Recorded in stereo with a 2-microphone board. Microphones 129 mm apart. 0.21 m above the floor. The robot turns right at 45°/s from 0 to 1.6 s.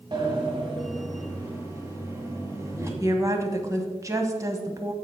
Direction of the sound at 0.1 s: 105° right.